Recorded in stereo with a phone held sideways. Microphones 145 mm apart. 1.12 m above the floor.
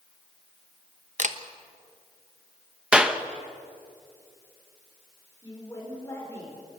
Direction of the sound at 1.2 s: 55° right (ahead or behind).